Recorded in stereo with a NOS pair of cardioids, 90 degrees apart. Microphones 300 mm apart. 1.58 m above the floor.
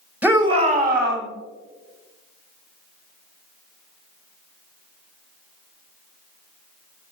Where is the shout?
5° right, 1.7 m; by 1.3 s 40° right, 2.5 m.